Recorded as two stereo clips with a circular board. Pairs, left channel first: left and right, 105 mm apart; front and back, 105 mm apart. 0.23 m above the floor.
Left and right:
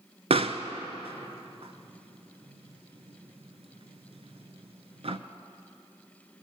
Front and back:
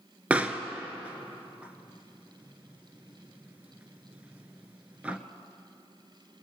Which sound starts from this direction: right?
A pop, at 0.3 s.